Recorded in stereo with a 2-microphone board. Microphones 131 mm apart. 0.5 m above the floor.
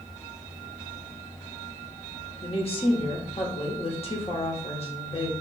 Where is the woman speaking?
45° left (ahead or behind), 1.0 m.